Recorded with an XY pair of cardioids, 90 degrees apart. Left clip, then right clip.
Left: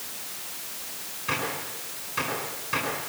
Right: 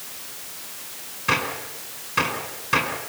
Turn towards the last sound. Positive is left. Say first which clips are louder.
# right 6 dB
turn(degrees=-65)